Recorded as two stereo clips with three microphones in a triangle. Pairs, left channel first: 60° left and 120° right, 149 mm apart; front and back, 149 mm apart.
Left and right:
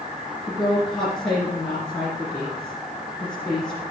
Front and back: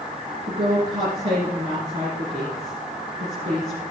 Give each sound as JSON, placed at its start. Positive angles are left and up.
{"t": 0.5, "sound": "a woman speaking", "azimuth_deg": 145, "distance_m": 2.5}